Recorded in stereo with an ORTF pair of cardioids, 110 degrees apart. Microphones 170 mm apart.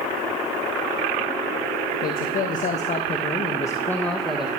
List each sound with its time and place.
2.0 s a man speaking: 60° left, 1.6 m; by 4.5 s 5° right, 1.3 m